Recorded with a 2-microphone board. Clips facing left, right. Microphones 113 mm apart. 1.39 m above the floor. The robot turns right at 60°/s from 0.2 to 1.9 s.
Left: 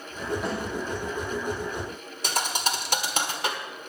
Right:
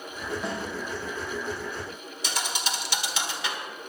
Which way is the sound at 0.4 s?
Centre (ahead or behind).